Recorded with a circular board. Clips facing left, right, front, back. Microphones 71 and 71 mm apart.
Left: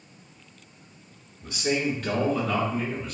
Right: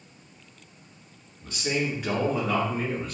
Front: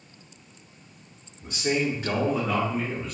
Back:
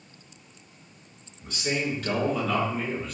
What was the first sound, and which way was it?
A man speaking, 25° left.